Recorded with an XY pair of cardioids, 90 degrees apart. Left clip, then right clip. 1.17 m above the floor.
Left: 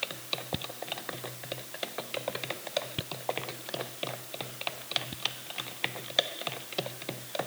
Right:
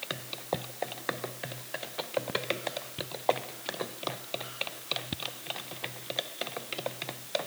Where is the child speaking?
No child speaking in this recording.